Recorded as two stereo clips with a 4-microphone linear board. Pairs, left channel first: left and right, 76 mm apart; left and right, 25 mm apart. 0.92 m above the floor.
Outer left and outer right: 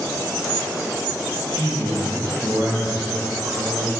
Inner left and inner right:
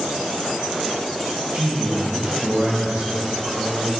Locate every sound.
1.5 s a man speaking: 55° right (ahead or behind), 1.2 m